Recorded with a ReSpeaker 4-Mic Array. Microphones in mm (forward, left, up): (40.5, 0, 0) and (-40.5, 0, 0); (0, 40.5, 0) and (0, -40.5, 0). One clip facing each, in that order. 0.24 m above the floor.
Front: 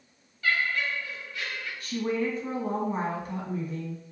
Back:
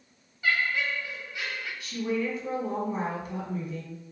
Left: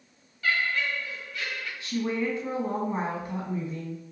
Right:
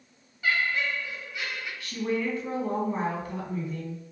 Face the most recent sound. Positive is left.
turn(degrees=30)